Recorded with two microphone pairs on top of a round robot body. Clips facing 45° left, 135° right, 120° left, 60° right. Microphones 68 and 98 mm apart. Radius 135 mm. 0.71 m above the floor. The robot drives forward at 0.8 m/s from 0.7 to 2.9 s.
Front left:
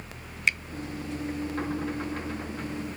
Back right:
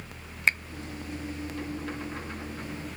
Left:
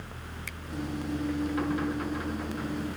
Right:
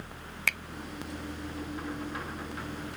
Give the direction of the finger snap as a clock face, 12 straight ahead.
3 o'clock.